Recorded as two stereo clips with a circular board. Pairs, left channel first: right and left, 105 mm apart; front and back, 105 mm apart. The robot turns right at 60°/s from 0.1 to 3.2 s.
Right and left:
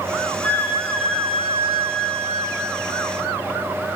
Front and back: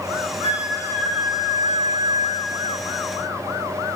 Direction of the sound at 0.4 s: 90° left.